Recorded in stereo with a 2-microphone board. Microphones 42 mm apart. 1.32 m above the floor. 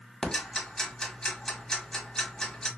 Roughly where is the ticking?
Centre.